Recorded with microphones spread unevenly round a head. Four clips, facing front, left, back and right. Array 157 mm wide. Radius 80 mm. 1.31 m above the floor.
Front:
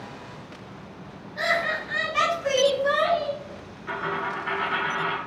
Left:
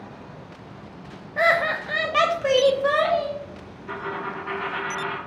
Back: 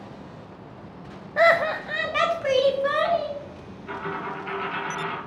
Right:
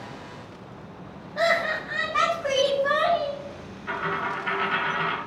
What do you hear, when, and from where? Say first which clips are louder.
1.4 s laughter: left 2 dB, back 7 dB; 175° left, 0.5 m; by 3.4 s 100° left, 1.4 m
3.9 s a dropped coin: right 2 dB, front 2 dB; 70° right, 1.4 m